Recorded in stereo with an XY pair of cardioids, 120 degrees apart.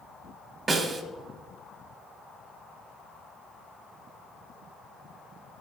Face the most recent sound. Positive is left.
turn(degrees=-30)